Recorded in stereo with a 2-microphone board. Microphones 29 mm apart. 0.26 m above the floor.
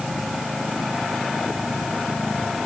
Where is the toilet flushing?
No toilet flushing in this recording.